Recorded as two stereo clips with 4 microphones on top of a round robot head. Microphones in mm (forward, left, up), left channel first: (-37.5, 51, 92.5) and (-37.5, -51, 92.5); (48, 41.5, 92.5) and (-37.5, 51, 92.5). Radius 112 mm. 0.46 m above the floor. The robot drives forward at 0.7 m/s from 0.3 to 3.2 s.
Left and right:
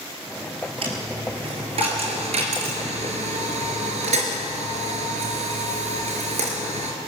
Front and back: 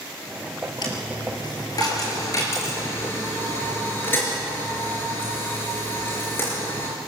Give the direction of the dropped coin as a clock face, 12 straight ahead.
2 o'clock.